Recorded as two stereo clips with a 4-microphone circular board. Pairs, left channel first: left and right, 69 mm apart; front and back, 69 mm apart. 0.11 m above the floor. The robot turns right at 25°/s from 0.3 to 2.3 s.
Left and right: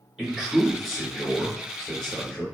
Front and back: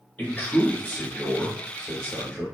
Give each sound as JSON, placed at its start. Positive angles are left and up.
{"t": 0.2, "sound": "a man speaking", "azimuth_deg": -20, "distance_m": 1.6}